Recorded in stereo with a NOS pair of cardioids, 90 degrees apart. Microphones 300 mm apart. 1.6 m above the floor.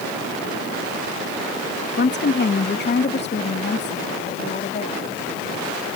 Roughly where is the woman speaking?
Ahead left.